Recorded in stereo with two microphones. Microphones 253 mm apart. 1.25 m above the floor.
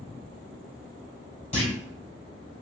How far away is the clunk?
About 1.4 m.